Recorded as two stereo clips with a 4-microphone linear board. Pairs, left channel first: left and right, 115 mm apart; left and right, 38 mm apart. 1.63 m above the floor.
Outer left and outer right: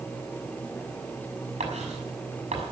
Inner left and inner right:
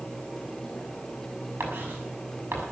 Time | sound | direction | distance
1.6 | writing | 80° right | 6 m